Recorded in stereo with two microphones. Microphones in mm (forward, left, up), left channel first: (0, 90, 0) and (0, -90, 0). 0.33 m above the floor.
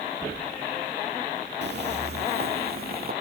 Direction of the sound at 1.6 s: 70° right (ahead or behind).